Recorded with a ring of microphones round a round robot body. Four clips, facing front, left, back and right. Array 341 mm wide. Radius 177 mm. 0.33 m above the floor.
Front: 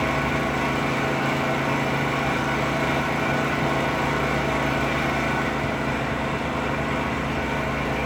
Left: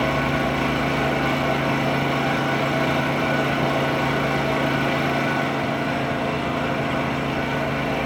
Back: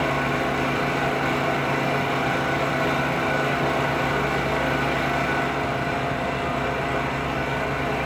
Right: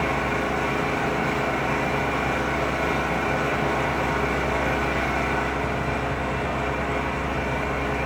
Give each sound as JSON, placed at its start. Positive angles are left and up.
{"t": 0.0, "sound": "an engine running", "azimuth_deg": 95, "distance_m": 7.0}